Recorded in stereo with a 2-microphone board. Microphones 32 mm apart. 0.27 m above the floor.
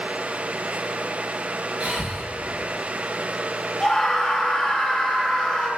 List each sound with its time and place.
1.8 s breathing: 40° right (ahead or behind), 1.5 m
3.8 s a scream: 20° left (ahead or behind), 2.5 m